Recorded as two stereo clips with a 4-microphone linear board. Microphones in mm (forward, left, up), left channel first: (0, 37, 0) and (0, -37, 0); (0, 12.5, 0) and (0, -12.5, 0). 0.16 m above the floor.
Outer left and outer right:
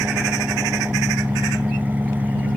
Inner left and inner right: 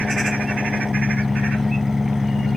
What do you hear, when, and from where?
0.0 s an engine running: 25° right (ahead or behind)